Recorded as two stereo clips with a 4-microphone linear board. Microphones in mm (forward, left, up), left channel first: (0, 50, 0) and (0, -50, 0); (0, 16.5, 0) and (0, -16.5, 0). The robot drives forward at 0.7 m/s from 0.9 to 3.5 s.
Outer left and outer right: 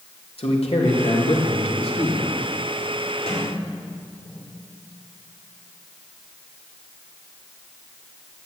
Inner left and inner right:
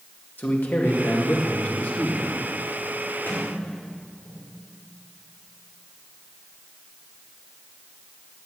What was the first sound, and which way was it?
A man speaking, 75° left (ahead or behind).